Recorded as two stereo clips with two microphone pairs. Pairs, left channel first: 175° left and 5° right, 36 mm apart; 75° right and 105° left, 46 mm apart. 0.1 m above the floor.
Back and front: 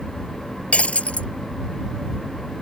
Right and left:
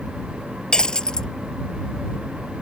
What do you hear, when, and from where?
0.7 s breaking glass: 140° right